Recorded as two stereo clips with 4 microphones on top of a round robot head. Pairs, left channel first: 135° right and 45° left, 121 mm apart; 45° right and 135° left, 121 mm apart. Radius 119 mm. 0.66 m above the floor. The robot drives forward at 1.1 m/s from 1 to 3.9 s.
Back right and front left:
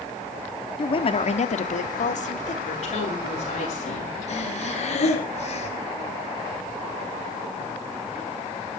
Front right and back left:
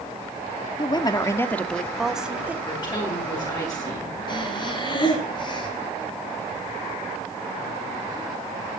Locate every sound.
0.8 s a woman speaking: 95° right, 1.4 m; by 2.6 s 145° right, 2.5 m
2.7 s a woman speaking: 100° right, 10 m; by 4.2 s 105° right, 10 m
4.3 s breathing: 100° right, 3 m